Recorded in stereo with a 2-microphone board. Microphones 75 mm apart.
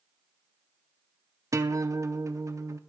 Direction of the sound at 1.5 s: 40° right (ahead or behind).